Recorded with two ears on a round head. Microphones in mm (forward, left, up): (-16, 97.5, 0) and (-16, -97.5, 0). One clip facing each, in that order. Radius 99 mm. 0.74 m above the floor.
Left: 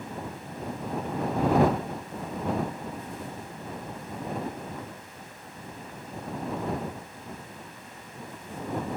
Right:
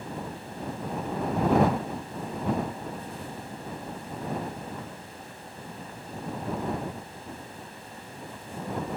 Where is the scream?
I don't hear a scream.